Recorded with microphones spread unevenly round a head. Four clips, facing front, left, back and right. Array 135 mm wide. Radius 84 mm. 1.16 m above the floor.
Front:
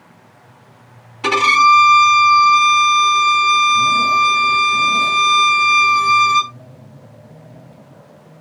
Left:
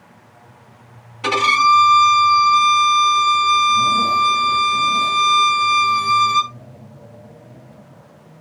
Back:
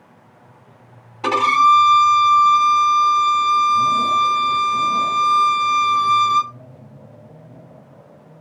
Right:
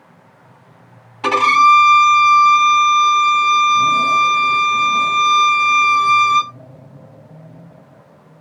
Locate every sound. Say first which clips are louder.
1.2 s a violin: right 4 dB, front 2 dB; 130° right, 1.5 m